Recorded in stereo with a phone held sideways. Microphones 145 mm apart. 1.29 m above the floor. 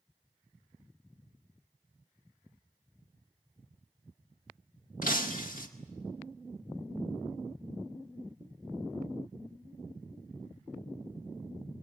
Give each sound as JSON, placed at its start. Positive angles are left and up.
{"t": 5.0, "sound": "breaking glass", "side_deg": 65, "distance_m": 1.9}